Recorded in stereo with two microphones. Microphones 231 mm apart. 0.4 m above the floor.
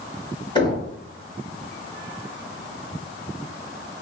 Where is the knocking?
20° left (ahead or behind), 1.7 m.